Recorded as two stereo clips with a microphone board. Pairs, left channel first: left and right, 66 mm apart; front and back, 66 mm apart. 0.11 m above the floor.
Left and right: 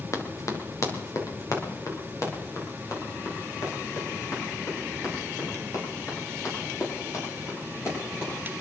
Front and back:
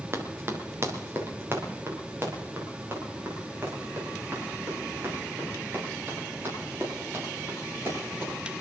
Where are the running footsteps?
130° left, 2.5 m; by 8.3 s 125° left, 15.5 m.